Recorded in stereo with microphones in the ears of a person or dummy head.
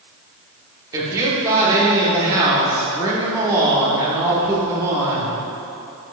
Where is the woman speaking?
20° right (ahead or behind), 1.4 m.